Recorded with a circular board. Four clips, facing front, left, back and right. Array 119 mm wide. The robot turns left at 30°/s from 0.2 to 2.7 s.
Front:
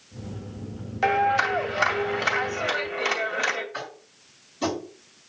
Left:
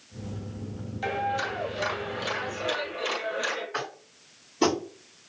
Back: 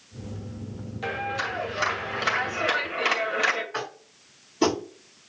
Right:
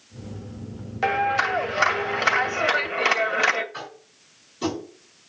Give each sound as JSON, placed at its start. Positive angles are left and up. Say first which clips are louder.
{"t": 1.0, "sound": "a clap", "louder": "right 7 dB, front 9 dB", "azimuth_deg": -55, "distance_m": 2.5}
{"t": 3.7, "sound": "tapping", "louder": "left 3 dB, back 3 dB", "azimuth_deg": 135, "distance_m": 2.0}